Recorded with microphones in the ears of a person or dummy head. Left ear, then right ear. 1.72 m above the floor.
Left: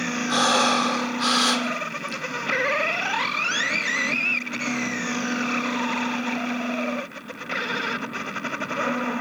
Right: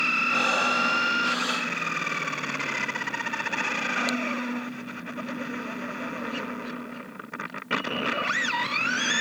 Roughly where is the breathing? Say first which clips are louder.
Left 3 dB; left.